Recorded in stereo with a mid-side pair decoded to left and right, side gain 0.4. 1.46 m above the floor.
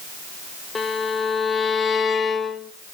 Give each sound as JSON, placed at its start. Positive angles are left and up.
{"t": 0.8, "sound": "a violin", "azimuth_deg": 40, "distance_m": 1.9}